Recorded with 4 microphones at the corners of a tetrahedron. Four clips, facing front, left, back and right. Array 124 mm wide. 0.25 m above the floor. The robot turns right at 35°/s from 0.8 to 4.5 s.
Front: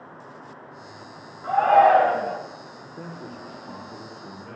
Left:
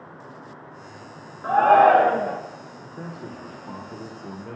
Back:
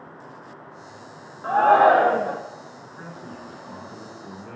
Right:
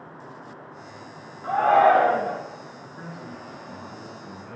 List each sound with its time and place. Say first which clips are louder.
1.4 s a shout: left 3 dB, back 1 dB; 135° left, 3.5 m; by 2.4 s 170° left, 3.5 m
2.8 s a man speaking: left 2 dB, front 1 dB; 45° left, 5.5 m; by 4.6 s 105° left, 5.5 m